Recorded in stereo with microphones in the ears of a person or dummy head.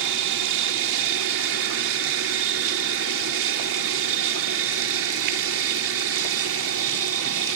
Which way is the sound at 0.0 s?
65° right (ahead or behind).